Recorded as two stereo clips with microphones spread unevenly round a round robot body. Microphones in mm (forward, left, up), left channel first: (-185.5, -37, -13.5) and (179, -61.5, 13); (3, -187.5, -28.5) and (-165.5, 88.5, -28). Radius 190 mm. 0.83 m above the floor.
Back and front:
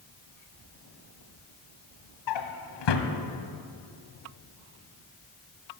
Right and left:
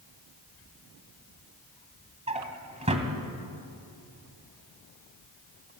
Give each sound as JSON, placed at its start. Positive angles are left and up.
{"t": 2.3, "sound": "a drawer", "azimuth_deg": -170, "distance_m": 1.6}